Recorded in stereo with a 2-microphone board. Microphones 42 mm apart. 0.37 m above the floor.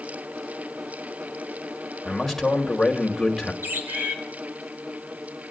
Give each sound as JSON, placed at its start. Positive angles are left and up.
{"t": 2.0, "sound": "a man speaking", "side_deg": 5, "distance_m": 1.9}
{"t": 3.6, "sound": "a bird", "side_deg": -55, "distance_m": 2.0}